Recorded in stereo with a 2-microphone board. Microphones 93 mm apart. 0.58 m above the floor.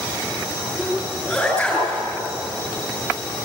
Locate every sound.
0.8 s a sneeze: 10° left (ahead or behind), 7 m